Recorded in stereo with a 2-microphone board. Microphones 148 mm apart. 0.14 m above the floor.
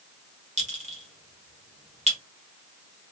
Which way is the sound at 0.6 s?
50° right (ahead or behind).